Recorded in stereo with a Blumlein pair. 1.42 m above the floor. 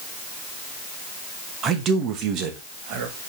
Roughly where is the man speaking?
Ahead right.